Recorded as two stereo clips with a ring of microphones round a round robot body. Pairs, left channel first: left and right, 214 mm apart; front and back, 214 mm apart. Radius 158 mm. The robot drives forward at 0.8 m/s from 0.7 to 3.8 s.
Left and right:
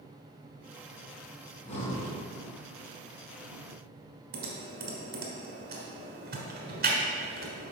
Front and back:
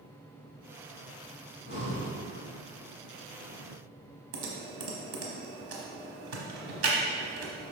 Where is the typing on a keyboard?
150° right, 0.9 m.